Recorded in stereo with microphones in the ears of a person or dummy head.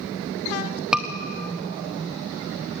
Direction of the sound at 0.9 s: 5° right (ahead or behind).